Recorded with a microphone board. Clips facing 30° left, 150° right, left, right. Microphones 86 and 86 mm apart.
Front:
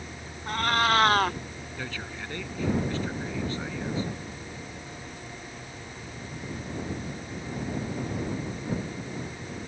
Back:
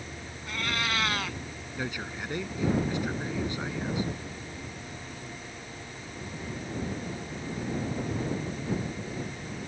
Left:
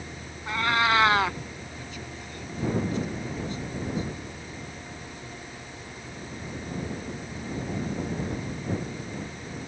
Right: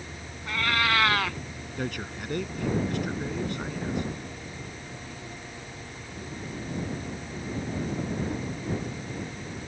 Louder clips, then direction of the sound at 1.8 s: Back 3 dB, right 6 dB; 75° right.